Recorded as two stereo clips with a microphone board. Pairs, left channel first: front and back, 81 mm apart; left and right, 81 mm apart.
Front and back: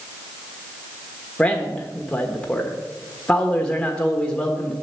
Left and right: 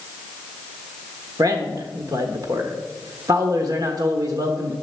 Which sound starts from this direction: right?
A man speaking, at 1.4 s.